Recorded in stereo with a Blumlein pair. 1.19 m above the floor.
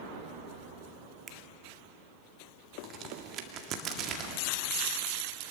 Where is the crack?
30° right, 1.9 m.